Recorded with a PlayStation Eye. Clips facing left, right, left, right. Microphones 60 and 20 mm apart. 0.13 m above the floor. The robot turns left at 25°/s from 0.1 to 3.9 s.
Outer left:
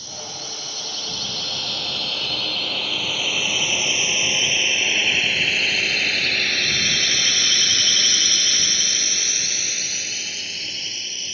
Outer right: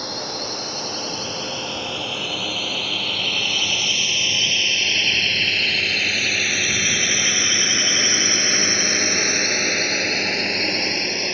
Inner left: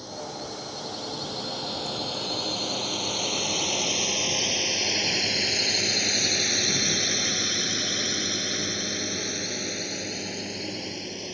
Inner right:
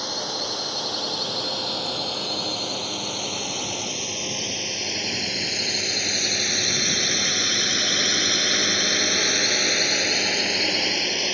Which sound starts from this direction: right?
A drone, at 0.0 s.